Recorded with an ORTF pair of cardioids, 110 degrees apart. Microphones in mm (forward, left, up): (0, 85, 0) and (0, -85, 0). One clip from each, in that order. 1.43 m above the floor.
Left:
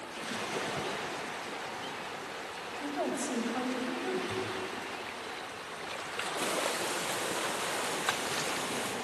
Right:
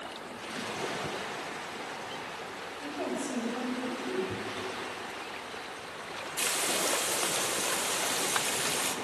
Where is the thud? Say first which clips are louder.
Left 1 dB; 10° right, 3.5 m.